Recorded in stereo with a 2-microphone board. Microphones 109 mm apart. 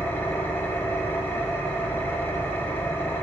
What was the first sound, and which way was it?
An engine running, 20° left (ahead or behind).